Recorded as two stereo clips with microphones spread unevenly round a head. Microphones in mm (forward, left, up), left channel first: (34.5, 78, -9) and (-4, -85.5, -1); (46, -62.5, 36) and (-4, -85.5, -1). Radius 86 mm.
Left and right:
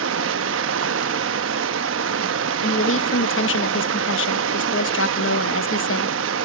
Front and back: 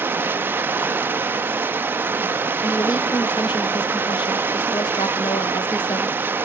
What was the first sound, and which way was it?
Running water, 120° right.